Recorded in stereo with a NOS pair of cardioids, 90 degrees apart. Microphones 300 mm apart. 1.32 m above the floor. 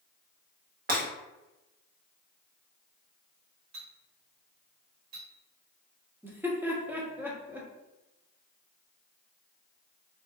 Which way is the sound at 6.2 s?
5° right.